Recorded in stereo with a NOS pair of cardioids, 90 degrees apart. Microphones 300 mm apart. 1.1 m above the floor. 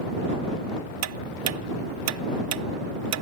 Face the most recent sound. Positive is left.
turn(degrees=-55)